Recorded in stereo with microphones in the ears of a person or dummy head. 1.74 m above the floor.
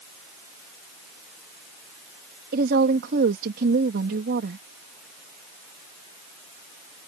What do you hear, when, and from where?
2.5 s a woman speaking: 50° right (ahead or behind)